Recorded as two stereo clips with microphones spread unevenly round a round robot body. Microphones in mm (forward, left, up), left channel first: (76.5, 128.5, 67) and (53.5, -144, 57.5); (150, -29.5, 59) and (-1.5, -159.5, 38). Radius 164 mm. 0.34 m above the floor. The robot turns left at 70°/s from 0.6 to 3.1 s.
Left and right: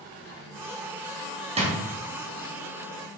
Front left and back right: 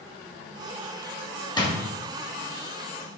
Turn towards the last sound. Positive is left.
turn(degrees=-140)